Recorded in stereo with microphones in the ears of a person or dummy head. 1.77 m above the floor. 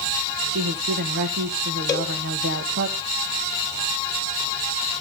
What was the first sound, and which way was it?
A woman speaking, 55° right (ahead or behind).